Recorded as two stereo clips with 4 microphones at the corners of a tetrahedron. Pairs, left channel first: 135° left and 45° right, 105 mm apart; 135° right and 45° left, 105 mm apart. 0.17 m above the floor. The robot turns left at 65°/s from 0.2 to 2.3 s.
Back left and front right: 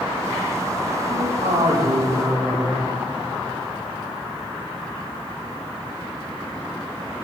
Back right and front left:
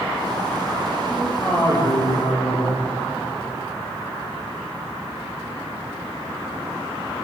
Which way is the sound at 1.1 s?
35° right.